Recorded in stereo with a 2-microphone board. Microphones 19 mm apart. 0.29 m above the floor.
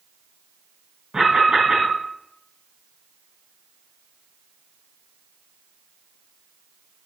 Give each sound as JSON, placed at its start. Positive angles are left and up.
{"t": 1.1, "sound": "an alarm", "side_deg": -45, "distance_m": 4.5}